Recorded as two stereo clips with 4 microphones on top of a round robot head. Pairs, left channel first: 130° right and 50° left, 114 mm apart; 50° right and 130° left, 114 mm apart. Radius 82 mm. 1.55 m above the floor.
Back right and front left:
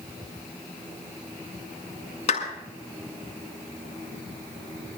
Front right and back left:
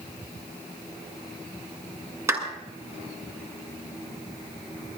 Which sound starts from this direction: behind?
A clap, at 2.3 s.